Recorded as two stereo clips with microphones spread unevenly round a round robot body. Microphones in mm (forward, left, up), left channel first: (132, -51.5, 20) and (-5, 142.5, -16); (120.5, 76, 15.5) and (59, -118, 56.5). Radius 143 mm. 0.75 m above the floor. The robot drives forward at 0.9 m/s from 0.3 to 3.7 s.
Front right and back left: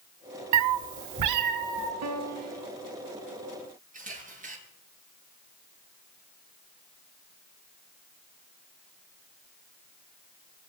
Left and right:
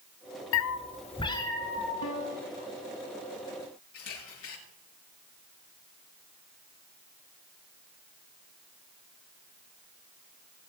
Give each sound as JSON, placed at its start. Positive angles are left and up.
{"t": 0.5, "sound": "a cat meowing", "azimuth_deg": 110, "distance_m": 0.6}
{"t": 2.0, "sound": "a piano", "azimuth_deg": 115, "distance_m": 1.4}
{"t": 3.9, "sound": "a camera shutter", "azimuth_deg": 70, "distance_m": 8.0}